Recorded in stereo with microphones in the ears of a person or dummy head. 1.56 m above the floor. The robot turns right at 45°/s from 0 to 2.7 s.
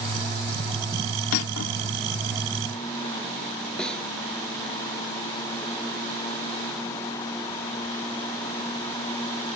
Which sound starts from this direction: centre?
A snare drum, at 3.8 s.